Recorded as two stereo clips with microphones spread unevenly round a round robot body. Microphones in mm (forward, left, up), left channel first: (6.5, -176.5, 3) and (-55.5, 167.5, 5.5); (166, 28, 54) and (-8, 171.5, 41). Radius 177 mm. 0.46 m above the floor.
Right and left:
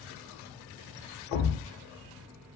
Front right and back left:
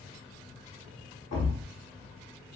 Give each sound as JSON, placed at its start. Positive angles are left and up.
{"t": 1.3, "sound": "a thud", "azimuth_deg": -65, "distance_m": 0.6}